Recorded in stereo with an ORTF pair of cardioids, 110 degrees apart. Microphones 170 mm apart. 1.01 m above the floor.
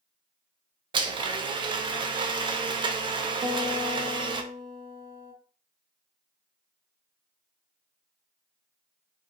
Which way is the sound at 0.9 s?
30° right.